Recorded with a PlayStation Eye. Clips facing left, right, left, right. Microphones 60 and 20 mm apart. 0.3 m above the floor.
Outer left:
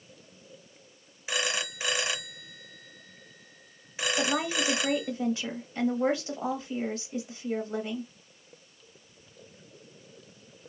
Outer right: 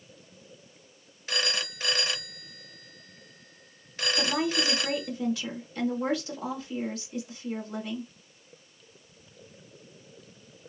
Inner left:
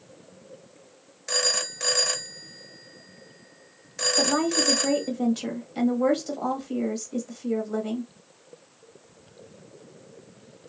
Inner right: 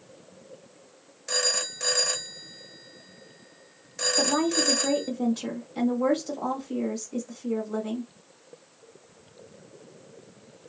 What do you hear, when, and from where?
1.3 s a phone ringing: 15° left (ahead or behind), 0.7 m
4.2 s a woman speaking: 30° left (ahead or behind), 1.4 m